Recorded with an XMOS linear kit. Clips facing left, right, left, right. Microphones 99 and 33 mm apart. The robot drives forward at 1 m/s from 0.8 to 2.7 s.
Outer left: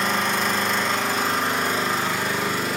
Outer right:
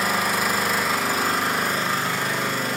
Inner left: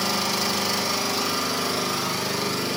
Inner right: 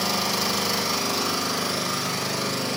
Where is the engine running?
5° right (ahead or behind), 1.0 m; by 2.8 s centre (ahead or behind), 3 m.